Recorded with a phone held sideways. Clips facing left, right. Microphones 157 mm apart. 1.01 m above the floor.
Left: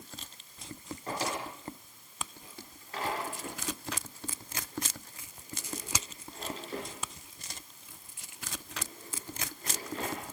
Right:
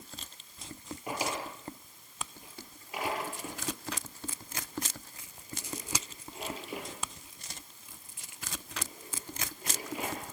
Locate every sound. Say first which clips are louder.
1.1 s a drawer: even; 10° right (ahead or behind), 7.5 m